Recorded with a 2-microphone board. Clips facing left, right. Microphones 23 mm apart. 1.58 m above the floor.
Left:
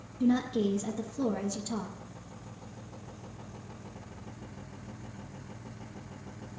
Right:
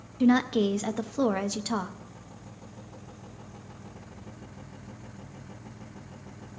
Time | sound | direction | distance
0.2 | a woman speaking | 65° right (ahead or behind) | 0.6 m